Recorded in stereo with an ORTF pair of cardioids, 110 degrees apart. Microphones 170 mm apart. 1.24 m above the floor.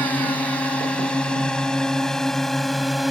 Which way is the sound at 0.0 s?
10° left.